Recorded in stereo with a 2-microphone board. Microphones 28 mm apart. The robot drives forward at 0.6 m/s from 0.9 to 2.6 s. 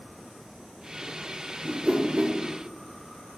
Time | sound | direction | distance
1.6 | a whoosh | 30° right (ahead or behind) | 0.6 m